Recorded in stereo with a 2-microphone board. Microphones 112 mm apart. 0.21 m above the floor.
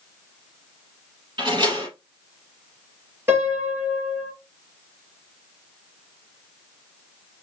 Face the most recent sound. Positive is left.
turn(degrees=-25)  # may be behind; listen again after turning